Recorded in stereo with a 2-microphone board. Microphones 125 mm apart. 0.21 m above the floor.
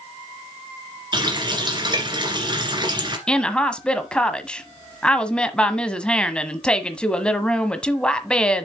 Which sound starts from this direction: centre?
A woman speaking, at 3.3 s.